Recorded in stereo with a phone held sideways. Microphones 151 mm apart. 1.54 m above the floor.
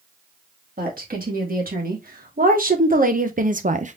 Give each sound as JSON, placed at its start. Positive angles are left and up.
{"t": 0.8, "sound": "a woman speaking", "side_deg": -75, "distance_m": 2.5}